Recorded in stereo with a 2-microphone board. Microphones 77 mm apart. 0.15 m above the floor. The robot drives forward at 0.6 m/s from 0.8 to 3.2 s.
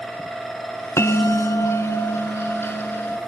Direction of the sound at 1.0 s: 35° left (ahead or behind).